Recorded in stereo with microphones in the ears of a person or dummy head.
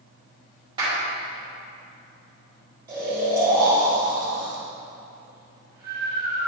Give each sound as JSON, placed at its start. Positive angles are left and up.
{"t": 0.8, "sound": "a clap", "side_deg": -30, "distance_m": 2.0}
{"t": 2.9, "sound": "snoring", "side_deg": -20, "distance_m": 1.8}